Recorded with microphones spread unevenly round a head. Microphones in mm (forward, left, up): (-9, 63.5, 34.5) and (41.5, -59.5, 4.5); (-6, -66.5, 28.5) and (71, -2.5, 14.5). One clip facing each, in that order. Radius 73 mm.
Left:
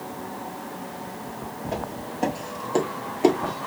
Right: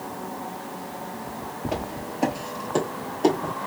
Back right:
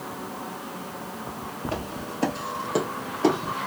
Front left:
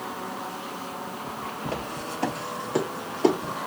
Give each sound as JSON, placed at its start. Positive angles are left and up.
{"t": 1.6, "sound": "footsteps", "azimuth_deg": -140, "distance_m": 1.1}